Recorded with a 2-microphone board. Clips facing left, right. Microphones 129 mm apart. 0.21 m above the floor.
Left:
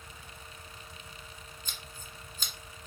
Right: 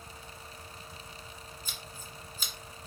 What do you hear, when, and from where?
1.6 s scissors: 5° right (ahead or behind), 1.3 m